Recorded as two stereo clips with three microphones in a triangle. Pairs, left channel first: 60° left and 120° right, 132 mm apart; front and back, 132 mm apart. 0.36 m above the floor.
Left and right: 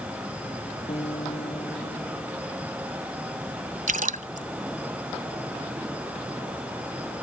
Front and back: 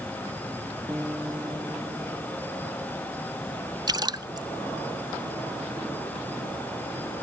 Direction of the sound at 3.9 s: 125° right.